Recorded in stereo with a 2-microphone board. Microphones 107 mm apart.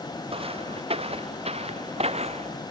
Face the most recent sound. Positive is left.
turn(degrees=-80)